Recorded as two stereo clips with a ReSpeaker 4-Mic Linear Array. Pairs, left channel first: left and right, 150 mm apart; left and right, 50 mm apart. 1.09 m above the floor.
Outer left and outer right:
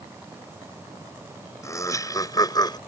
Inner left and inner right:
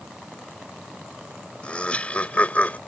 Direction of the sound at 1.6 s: 20° left (ahead or behind).